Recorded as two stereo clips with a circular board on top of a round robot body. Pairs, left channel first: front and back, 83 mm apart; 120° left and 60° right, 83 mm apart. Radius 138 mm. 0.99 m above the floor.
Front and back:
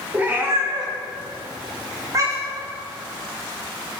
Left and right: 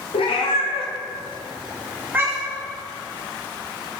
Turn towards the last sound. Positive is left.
turn(degrees=-120)